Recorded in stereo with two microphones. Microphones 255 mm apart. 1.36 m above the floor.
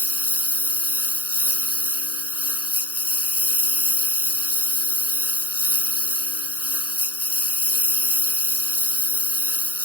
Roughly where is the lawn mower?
Left.